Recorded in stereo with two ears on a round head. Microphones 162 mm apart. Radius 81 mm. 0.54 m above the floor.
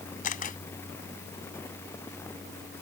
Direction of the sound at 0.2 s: 50° left (ahead or behind).